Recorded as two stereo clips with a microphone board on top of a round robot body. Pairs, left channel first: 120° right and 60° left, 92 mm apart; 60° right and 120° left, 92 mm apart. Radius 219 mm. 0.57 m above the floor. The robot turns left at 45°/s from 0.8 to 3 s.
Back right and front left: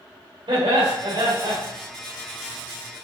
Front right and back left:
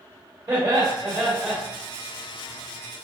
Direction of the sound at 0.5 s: 80° left.